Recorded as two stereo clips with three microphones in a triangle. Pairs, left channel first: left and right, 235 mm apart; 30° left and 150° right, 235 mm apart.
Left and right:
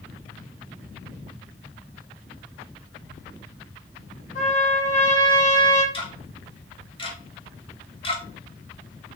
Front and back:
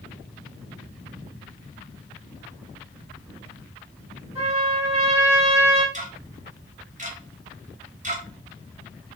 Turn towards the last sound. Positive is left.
turn(degrees=155)